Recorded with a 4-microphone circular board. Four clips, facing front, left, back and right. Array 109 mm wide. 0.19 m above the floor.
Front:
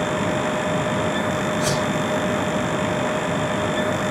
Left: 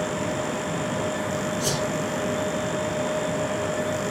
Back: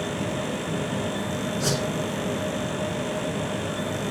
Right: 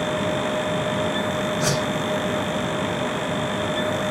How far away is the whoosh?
About 1.7 m.